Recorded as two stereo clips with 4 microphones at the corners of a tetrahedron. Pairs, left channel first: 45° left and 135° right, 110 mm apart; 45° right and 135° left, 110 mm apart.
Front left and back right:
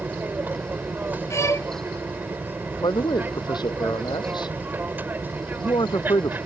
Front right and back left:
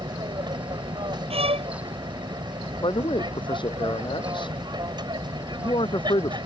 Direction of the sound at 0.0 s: 155° left.